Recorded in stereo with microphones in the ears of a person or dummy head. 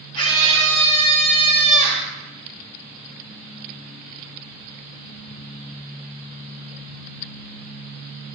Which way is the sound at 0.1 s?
20° left (ahead or behind).